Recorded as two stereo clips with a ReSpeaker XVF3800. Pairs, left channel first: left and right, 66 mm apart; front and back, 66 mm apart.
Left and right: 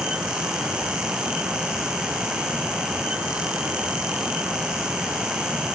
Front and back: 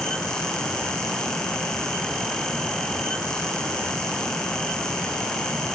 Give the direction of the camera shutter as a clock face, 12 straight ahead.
No camera shutter in this recording.